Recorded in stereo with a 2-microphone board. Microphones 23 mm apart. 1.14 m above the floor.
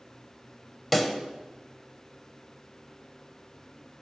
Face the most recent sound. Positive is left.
turn(degrees=10)  # may be behind; listen again after turning